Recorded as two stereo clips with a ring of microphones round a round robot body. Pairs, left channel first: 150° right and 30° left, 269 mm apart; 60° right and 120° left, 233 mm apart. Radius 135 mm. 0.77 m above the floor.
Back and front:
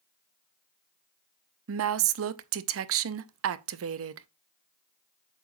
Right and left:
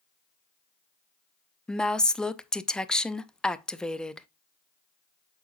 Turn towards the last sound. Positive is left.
turn(degrees=25)